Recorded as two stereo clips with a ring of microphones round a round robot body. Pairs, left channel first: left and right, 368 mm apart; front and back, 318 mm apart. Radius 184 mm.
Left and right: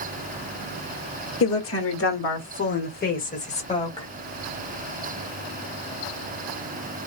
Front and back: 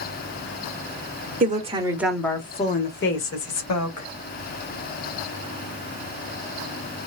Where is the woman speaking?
130° left, 1.0 m; by 4.1 s 15° left, 1.4 m.